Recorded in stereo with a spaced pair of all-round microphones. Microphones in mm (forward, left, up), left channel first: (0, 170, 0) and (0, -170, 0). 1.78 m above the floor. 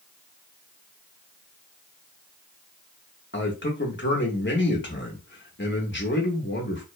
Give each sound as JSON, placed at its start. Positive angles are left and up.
{"t": 3.3, "sound": "a man speaking", "side_deg": 35, "distance_m": 0.7}